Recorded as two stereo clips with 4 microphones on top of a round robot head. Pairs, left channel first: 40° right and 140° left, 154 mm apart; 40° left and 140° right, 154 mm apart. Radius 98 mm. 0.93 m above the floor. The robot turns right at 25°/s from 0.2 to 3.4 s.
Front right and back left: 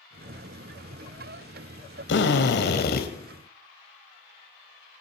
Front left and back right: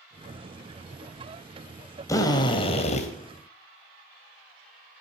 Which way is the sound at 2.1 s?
30° right.